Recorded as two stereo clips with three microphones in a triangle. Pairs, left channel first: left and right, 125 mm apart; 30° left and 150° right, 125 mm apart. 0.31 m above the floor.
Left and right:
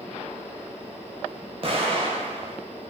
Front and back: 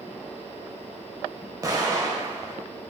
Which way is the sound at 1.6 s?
100° right.